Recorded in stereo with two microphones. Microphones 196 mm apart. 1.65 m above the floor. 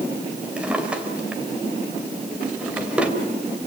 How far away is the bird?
No bird in this recording.